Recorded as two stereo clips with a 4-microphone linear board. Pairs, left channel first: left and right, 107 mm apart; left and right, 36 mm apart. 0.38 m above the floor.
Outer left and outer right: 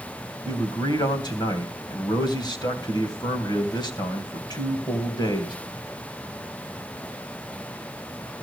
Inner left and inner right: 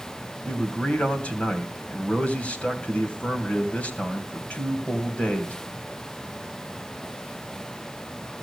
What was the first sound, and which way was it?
A man speaking, 40° left (ahead or behind).